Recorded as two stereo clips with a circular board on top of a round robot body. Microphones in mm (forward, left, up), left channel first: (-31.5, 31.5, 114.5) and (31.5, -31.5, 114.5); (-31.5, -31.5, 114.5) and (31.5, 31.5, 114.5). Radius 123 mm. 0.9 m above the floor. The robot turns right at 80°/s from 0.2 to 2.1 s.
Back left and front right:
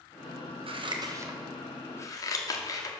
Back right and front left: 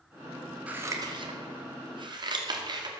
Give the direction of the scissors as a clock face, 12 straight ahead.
1 o'clock.